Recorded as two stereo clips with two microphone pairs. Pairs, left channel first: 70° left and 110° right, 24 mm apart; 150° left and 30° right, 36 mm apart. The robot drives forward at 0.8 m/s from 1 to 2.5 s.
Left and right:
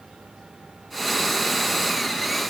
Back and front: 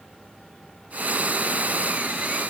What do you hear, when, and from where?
Only background noise.